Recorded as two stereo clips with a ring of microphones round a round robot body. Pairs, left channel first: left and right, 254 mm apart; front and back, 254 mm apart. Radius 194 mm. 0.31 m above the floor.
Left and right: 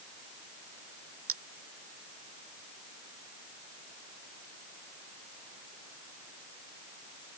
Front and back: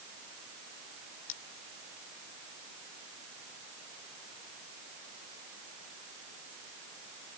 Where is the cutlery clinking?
55° right.